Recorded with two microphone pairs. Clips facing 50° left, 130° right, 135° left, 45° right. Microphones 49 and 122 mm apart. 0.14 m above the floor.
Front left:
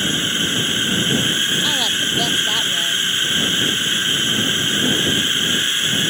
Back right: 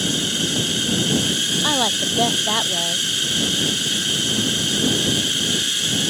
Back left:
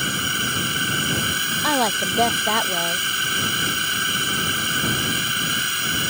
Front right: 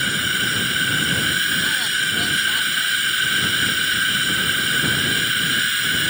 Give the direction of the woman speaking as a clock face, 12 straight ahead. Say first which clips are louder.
Front left 1 dB, back left 6 dB; 7 o'clock.